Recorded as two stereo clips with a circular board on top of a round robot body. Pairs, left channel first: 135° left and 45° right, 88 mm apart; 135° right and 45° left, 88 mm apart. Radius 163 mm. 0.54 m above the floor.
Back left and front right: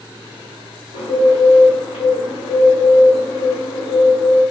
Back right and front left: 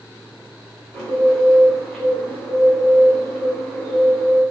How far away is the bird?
About 1.1 m.